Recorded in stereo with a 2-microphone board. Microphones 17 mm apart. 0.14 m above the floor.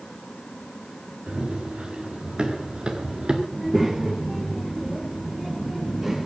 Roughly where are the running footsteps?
Right.